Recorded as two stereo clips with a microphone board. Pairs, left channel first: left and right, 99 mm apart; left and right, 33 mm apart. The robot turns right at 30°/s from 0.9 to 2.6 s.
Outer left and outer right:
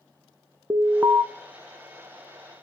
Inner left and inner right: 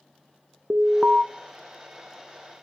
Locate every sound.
0.7 s an alarm: 30° right (ahead or behind), 0.9 m